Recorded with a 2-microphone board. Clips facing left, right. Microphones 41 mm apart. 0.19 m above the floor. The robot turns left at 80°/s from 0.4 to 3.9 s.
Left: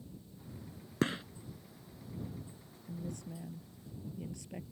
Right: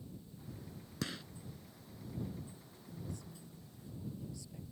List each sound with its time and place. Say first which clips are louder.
1.0 s a gunshot: left 9 dB; 35° left (ahead or behind); by 1.2 s 20° left (ahead or behind)
2.9 s a woman speaking: left 5 dB; 135° left; by 4.6 s 55° left